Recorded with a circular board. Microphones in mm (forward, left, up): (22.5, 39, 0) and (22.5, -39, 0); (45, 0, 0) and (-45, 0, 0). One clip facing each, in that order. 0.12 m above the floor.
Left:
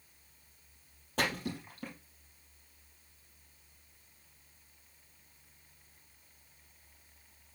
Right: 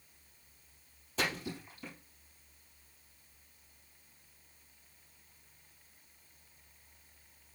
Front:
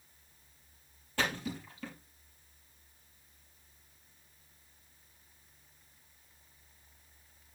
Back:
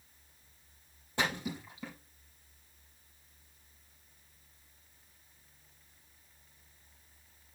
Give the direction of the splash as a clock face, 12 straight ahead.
8 o'clock.